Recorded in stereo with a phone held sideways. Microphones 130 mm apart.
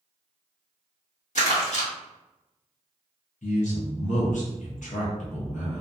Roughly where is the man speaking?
Left.